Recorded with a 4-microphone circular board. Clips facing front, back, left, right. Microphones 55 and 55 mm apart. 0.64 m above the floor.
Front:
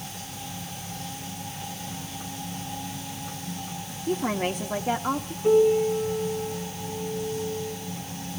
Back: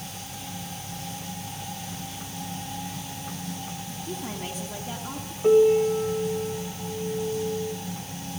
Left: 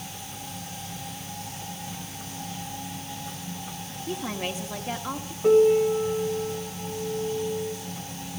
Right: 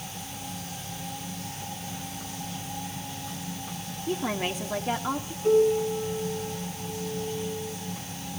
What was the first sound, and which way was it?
A woman speaking, 20° right.